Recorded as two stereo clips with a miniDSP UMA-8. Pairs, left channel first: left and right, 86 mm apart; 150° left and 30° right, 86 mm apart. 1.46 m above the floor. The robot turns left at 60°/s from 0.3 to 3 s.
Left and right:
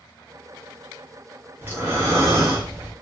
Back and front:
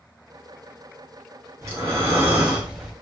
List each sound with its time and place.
1.6 s breathing: 40° right, 1.0 m; by 2.9 s 120° right, 1.0 m